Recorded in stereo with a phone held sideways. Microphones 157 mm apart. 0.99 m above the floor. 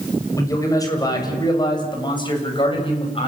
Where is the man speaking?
20° left (ahead or behind), 6 m; by 3.3 s 35° left (ahead or behind), 7 m.